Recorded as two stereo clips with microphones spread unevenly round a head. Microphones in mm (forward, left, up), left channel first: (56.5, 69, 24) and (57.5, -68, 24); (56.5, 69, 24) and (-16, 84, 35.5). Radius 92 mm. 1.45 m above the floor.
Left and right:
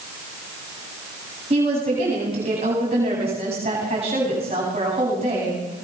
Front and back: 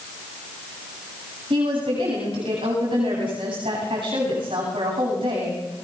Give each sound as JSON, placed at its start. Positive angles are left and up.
{"t": 1.5, "sound": "a woman speaking", "azimuth_deg": -150, "distance_m": 9.0}